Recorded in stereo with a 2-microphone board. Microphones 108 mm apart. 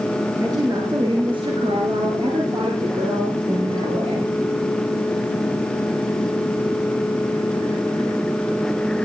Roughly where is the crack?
I don't hear a crack.